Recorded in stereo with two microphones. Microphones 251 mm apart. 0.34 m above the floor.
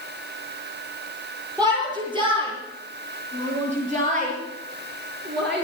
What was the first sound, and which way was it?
A shout, 15° right (ahead or behind).